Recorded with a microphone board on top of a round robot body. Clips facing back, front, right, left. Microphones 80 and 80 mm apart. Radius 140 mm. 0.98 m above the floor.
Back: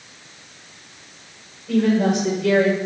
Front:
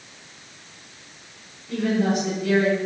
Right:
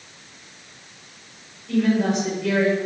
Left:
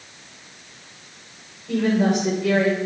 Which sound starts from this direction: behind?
A woman speaking, at 1.7 s.